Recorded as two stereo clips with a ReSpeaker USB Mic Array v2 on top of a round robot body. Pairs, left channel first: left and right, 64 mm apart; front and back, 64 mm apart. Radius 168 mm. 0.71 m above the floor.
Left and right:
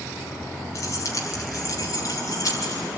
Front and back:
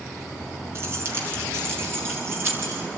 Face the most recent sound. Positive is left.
turn(degrees=130)